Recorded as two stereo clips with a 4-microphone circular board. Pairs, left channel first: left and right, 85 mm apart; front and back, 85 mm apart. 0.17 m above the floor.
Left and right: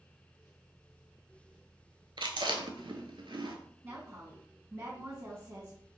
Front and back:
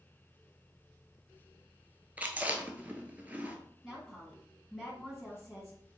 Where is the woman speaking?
95° right, 1.1 m.